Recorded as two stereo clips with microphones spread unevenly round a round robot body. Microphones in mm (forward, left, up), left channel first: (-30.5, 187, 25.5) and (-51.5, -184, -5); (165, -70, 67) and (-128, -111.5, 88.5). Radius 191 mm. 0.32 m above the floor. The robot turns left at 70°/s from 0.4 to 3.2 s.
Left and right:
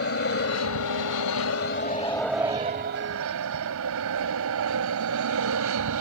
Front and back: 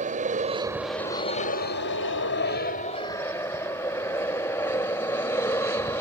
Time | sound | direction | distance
0.0 | an aircraft | 130° left | ?